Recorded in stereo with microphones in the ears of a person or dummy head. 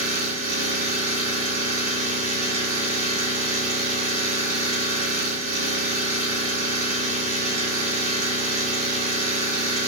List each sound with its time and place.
0.0 s an engine running: 75° right (ahead or behind), 1.9 m